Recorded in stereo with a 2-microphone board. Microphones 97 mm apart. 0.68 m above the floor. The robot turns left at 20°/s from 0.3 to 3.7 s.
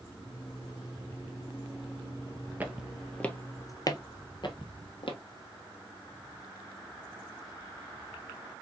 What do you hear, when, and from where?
2.6 s footsteps: 15° right (ahead or behind), 0.9 m; by 5.2 s 65° left (ahead or behind), 1.5 m